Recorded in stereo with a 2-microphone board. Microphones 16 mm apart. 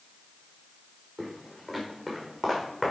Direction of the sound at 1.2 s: 10° left (ahead or behind).